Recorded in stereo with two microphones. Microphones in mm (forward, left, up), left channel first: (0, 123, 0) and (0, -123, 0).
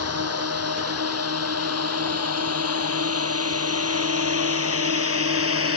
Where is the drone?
75° right (ahead or behind); by 5.8 s 60° right (ahead or behind).